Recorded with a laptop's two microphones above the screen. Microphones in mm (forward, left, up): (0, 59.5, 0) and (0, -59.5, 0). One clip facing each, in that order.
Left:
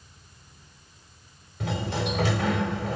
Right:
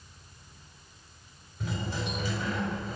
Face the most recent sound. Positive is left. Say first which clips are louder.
# left 5 dB
turn(degrees=85)